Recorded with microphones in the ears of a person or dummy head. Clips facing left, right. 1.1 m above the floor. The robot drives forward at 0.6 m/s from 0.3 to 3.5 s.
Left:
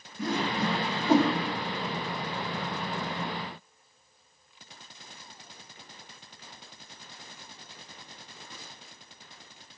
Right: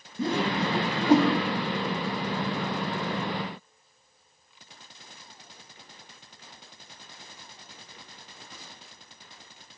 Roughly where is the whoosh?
Right.